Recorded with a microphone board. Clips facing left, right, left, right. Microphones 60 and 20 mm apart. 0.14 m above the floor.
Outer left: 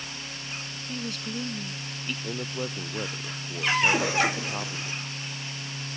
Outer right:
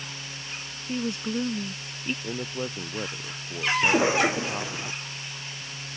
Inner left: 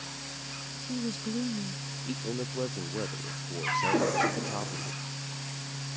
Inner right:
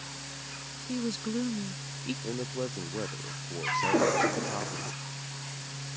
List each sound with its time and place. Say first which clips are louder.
0.9 s a woman speaking: outer right 6 dB, inner right 1 dB; 30° right (ahead or behind)
2.2 s a man speaking: outer right 1 dB, inner left 2 dB; centre (ahead or behind)
3.8 s a cough: outer right 4 dB, inner right 2 dB; 25° right (ahead or behind)